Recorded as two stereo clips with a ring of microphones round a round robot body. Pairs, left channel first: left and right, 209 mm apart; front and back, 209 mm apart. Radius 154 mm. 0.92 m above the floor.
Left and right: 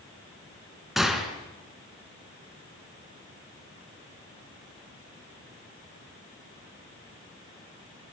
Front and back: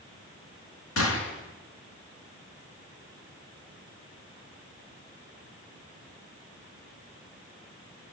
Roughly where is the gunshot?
Ahead.